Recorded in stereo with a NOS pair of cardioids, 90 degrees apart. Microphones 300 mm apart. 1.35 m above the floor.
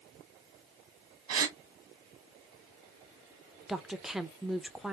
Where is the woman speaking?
Straight ahead, 0.7 m.